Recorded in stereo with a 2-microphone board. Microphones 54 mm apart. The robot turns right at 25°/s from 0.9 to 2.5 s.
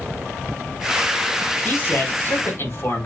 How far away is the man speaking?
About 2.5 m.